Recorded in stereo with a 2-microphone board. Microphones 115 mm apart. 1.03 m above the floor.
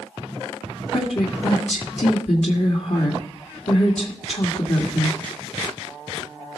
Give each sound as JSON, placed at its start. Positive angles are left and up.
{"t": 0.9, "sound": "a woman speaking", "side_deg": 65, "distance_m": 1.6}